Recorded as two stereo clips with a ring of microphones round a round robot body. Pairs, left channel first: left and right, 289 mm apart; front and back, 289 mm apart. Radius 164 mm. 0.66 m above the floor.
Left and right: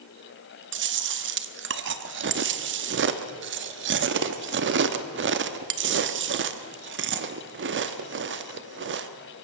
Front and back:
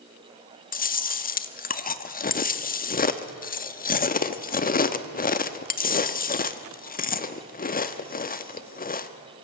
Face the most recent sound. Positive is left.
turn(degrees=-55)